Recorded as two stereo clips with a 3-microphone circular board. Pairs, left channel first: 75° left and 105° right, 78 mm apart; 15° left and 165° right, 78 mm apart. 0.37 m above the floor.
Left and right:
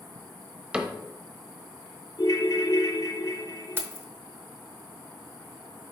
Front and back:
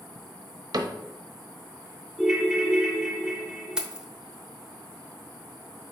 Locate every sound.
0.7 s a cupboard door: straight behind, 0.8 m
2.2 s a ringtone: 110° left, 1.3 m
3.8 s keys jangling: 100° right, 0.8 m